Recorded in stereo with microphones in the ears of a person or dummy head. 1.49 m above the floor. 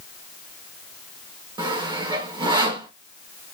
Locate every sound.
1.6 s sawing: 25° right (ahead or behind), 1.0 m